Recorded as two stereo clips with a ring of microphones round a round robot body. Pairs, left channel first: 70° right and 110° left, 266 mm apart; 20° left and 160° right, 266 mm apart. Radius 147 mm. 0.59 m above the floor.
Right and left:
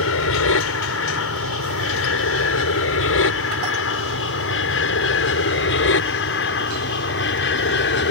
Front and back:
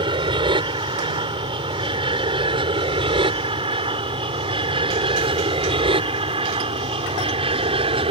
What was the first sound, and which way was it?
An aircraft, 90° right.